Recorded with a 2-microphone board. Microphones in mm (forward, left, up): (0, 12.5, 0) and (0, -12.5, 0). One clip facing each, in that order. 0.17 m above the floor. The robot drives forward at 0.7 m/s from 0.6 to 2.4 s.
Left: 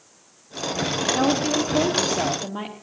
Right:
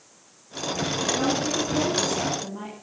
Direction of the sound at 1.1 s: 60° left (ahead or behind).